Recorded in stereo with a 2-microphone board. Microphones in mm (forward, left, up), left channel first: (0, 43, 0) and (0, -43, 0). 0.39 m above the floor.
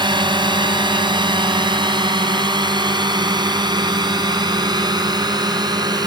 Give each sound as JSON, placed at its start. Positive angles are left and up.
{"t": 0.0, "sound": "a drone", "side_deg": -65}